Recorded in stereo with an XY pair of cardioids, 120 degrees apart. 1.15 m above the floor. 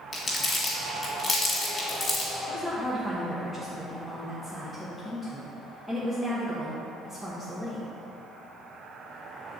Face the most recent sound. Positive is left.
turn(degrees=-10)